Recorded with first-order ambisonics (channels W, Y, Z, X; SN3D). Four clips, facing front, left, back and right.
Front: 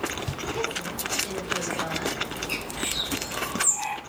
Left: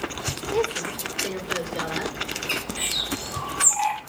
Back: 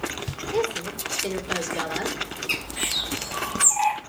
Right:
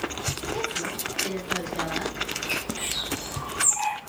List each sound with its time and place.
0.5 s a woman speaking: 165° left, 1.8 m
2.5 s a bird: 165° left, 1.5 m